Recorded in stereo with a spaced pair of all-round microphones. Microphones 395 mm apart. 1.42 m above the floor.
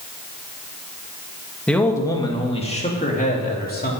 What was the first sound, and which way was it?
A man speaking, 5° left (ahead or behind).